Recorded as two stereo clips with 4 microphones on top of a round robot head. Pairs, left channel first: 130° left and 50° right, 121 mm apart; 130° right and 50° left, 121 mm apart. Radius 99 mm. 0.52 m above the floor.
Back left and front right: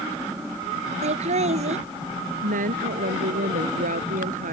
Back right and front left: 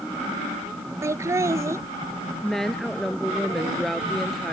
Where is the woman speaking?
45° right.